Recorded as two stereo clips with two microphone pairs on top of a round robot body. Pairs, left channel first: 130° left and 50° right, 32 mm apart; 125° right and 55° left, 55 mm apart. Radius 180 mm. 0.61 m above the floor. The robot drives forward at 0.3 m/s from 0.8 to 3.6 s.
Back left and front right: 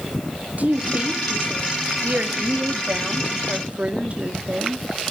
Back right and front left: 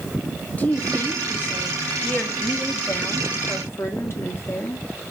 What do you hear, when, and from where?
0.6 s a woman speaking: 60° right, 2.5 m; by 4.8 s 85° right, 2 m